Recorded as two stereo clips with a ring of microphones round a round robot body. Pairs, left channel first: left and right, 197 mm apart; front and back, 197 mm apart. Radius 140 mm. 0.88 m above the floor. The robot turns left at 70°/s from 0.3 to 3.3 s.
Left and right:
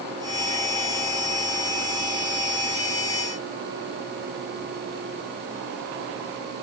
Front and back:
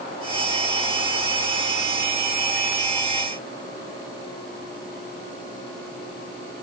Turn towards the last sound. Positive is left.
No sound to turn to.